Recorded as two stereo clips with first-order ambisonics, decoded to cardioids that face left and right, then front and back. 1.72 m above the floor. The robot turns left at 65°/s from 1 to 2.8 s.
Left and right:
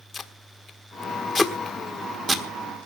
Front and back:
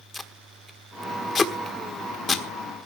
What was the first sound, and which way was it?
Tape being pulled, 55° left.